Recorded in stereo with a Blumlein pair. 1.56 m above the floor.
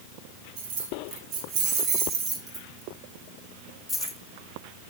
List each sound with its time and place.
0.6 s keys jangling: 50° right, 2.5 m; by 4.2 s straight ahead, 1.8 m